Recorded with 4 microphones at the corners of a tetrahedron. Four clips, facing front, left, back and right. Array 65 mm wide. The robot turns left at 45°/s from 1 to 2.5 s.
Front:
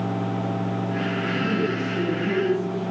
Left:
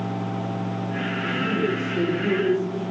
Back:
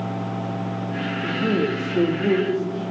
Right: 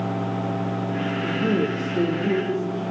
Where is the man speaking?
130° right, 4 m; by 2.8 s 175° left, 4 m.